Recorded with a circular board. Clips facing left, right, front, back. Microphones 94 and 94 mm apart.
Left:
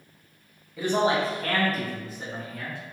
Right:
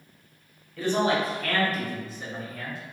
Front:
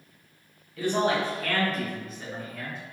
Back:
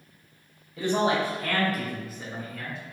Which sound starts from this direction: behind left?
A man speaking, at 0.8 s.